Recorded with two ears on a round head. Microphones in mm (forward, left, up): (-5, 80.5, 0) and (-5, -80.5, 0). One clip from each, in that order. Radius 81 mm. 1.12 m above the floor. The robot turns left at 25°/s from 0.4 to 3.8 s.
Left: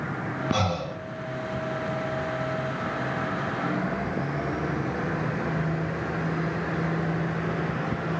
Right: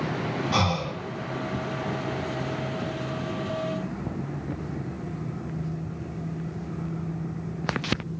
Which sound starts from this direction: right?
Breathing, at 0.5 s.